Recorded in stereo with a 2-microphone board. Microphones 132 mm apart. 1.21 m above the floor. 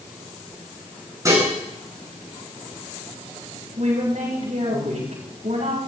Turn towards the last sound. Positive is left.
turn(degrees=-60)  # may be behind; listen again after turning